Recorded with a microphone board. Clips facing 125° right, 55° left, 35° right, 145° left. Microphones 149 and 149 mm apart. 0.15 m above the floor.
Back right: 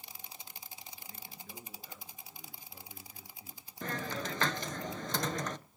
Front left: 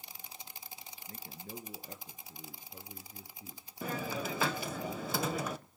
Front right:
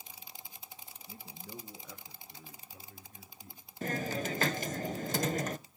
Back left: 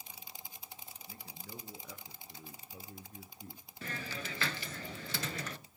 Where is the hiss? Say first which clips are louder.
Front left 1 dB, front right 9 dB; 25° right, 0.5 m.